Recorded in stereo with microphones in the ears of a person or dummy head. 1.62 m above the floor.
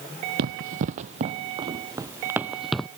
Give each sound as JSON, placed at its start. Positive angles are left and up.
{"t": 0.4, "sound": "running footsteps", "side_deg": -45}